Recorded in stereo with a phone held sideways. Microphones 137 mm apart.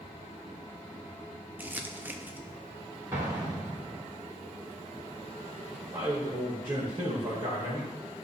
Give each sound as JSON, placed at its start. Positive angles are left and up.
{"t": 1.6, "sound": "crumpling", "side_deg": -15, "distance_m": 0.6}
{"t": 3.1, "sound": "an explosion", "side_deg": -25, "distance_m": 2.5}
{"t": 5.9, "sound": "a man speaking", "side_deg": -40, "distance_m": 2.0}